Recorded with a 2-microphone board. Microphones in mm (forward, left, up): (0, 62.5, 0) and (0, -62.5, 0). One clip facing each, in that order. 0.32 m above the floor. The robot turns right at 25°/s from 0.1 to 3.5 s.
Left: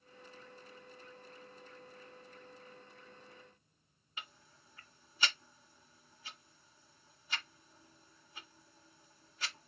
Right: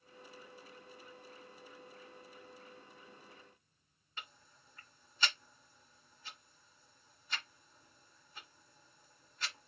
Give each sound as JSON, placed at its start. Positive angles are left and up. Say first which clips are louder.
{"t": 4.2, "sound": "ticking", "louder": "left 1 dB", "side_deg": 10, "distance_m": 1.7}